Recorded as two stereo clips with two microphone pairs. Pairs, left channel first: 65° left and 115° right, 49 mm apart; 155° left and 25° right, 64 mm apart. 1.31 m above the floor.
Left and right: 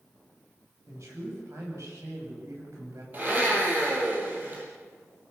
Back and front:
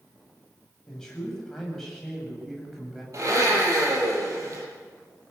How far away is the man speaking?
About 8.5 m.